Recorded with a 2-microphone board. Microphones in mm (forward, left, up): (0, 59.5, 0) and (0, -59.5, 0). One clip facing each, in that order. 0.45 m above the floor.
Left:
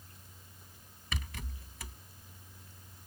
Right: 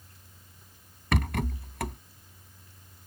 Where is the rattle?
65° right (ahead or behind).